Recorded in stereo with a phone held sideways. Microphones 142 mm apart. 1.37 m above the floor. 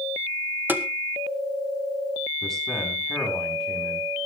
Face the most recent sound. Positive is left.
turn(degrees=5)  # may be behind; listen again after turning